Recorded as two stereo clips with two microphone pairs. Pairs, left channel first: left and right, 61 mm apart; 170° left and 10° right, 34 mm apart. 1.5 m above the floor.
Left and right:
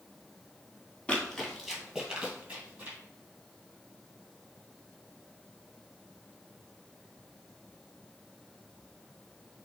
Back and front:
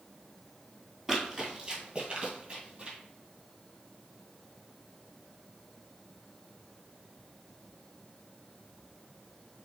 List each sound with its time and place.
1.1 s running footsteps: 45° left, 1.5 m; by 3.0 s 50° right, 2 m